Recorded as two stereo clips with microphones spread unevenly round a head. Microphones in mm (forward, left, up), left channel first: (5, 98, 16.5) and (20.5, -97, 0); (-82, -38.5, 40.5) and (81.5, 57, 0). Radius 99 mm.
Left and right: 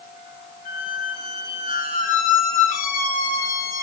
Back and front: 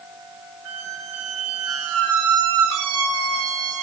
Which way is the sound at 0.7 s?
45° left.